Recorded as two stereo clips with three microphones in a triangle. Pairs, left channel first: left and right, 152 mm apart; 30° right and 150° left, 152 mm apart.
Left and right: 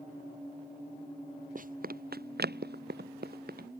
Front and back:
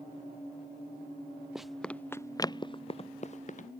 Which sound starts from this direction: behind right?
Running footsteps, at 1.6 s.